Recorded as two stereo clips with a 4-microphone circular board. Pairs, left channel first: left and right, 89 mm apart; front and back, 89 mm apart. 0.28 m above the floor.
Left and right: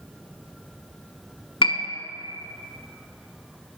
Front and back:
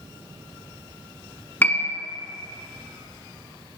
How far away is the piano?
About 0.6 m.